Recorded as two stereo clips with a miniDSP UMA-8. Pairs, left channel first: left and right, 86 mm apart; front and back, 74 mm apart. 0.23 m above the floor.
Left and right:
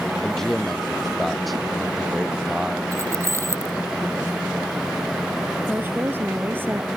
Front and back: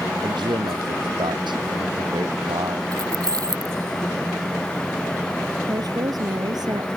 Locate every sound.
0.2 s a man speaking: 175° left; by 2.8 s 175° right
2.9 s keys jangling: 145° right
5.7 s a woman speaking: 155° right